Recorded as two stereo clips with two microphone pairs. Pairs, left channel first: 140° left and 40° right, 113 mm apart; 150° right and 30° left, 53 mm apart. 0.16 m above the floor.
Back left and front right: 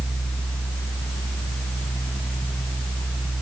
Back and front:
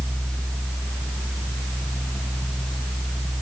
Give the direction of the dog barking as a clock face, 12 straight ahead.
No dog barking in this recording.